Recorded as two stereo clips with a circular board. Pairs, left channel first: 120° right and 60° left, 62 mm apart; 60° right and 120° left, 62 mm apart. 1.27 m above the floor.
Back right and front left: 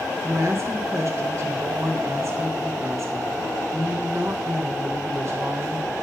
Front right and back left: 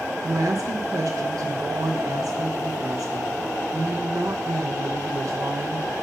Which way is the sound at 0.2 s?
100° left.